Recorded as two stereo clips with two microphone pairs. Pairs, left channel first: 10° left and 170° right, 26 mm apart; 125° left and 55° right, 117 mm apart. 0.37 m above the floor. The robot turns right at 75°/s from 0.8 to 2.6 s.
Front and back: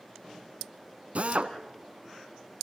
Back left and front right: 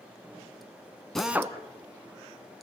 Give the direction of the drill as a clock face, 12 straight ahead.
5 o'clock.